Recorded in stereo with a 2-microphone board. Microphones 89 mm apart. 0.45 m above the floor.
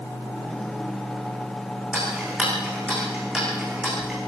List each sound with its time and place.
1.9 s ticking: 10° right (ahead or behind), 8.5 m